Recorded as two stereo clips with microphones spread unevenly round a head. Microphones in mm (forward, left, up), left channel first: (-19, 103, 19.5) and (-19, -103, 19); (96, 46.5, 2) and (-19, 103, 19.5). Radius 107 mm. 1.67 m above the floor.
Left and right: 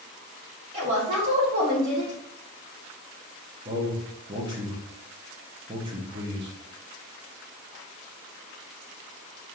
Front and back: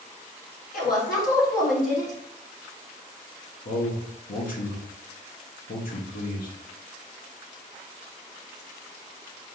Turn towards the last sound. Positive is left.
turn(degrees=-20)